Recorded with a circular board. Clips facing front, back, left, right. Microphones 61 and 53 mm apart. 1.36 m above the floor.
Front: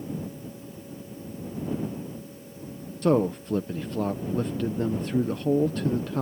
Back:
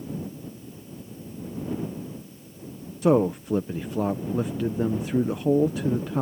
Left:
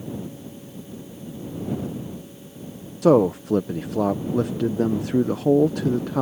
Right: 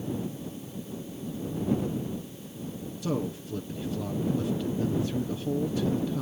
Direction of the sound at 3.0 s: 100° left.